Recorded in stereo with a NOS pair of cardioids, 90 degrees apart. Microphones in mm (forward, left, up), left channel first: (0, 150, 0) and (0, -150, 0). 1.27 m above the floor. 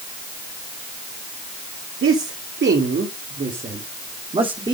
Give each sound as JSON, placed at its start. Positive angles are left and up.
{"t": 2.0, "sound": "a man speaking", "azimuth_deg": -45, "distance_m": 3.0}